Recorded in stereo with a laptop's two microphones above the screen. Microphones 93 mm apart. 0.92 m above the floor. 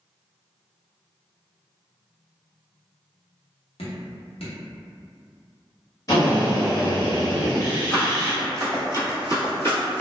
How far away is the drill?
About 0.9 m.